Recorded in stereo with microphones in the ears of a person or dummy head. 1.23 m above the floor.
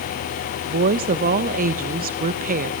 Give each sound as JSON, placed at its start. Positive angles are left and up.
{"t": 0.7, "sound": "a woman speaking", "side_deg": -40, "distance_m": 1.0}